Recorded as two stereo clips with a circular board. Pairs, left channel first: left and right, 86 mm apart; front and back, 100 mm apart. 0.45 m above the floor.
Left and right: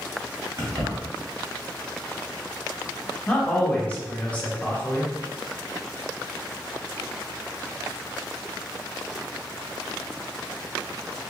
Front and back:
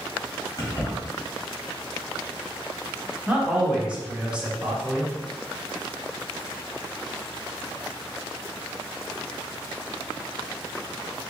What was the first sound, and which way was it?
Keys jangling, 50° right.